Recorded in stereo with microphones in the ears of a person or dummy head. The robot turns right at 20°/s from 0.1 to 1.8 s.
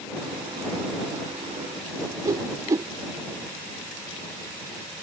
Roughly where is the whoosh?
Centre.